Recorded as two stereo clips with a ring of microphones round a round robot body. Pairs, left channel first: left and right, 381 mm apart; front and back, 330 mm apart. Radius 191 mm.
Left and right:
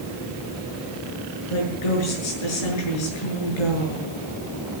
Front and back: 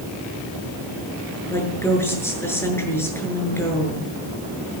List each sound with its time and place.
1.5 s a woman speaking: 80° left, 7.5 m